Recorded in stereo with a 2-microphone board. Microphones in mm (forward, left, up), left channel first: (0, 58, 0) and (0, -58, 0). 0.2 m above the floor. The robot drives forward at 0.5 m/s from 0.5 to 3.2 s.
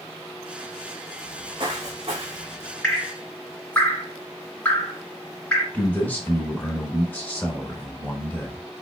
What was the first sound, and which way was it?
Footsteps, 40° right (ahead or behind).